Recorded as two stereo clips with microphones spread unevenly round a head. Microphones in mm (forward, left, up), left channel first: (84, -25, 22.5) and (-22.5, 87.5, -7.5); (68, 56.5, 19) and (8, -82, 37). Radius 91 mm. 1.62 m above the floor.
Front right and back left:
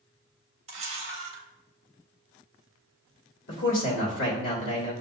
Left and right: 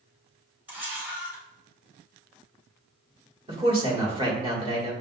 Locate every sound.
0.7 s a camera shutter: straight behind, 0.8 m
3.5 s a man speaking: 55° right, 1.4 m